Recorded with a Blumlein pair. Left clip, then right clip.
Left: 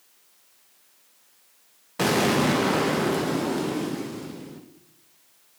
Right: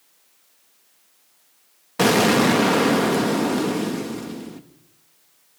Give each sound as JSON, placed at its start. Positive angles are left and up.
{"t": 2.0, "sound": "an explosion", "azimuth_deg": -15, "distance_m": 0.7}